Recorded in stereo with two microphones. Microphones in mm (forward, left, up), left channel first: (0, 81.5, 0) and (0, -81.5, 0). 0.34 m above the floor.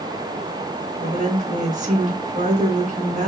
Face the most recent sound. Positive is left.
turn(degrees=-50)  # may be behind; listen again after turning